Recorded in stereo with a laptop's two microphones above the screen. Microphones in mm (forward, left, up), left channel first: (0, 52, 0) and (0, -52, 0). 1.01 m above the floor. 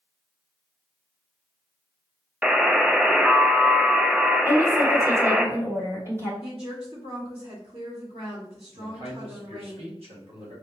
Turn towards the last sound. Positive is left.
turn(degrees=-70)  # may be behind; listen again after turning